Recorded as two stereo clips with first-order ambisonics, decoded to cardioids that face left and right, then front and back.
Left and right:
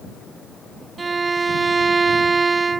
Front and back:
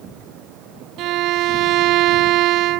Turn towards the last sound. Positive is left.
turn(degrees=-160)